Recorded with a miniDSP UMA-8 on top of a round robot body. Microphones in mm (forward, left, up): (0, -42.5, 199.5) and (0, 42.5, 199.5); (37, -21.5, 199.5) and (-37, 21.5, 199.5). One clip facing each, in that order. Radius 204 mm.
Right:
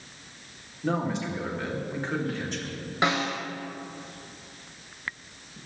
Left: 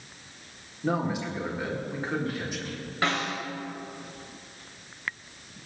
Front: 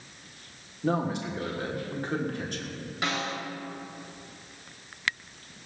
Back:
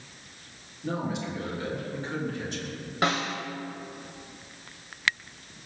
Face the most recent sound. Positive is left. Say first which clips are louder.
# right 2 dB, back 4 dB
turn(degrees=-160)